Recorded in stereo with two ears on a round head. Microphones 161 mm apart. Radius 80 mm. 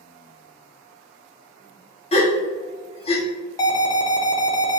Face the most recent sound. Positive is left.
turn(degrees=20)  # may be behind; listen again after turning